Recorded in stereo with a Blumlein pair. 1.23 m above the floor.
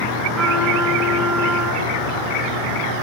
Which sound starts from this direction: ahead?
A trumpet, at 0.3 s.